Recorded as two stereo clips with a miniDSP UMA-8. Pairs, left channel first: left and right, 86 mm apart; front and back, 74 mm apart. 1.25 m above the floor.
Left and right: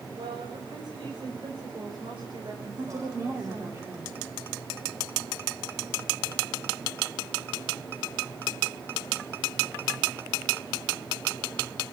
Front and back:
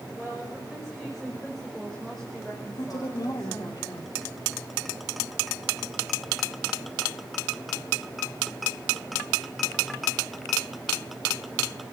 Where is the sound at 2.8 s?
40° right, 4 m.